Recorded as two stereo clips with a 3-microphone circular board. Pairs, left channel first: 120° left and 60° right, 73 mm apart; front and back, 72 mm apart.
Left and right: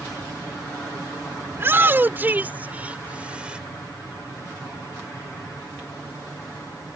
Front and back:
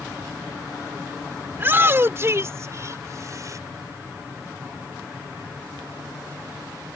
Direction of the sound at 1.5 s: 120° right.